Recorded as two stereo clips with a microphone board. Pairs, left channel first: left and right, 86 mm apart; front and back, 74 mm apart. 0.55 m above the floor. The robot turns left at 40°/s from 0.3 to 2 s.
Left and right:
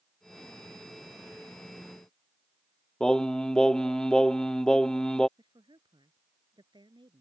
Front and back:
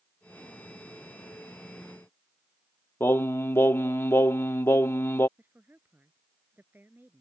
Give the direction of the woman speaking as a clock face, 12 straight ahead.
4 o'clock.